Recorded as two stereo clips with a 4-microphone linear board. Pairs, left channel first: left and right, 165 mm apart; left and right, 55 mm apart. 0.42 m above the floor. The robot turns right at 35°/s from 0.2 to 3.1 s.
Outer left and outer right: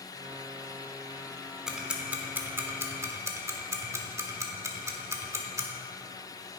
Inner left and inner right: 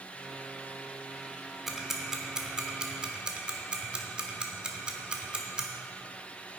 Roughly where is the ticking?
Centre.